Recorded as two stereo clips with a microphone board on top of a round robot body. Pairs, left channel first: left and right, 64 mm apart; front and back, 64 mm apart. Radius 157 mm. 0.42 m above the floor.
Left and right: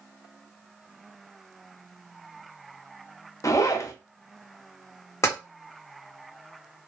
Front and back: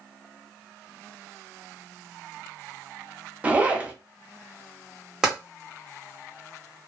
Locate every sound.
3.4 s a zipper: 115° left, 0.7 m
5.2 s tapping: 100° left, 1.8 m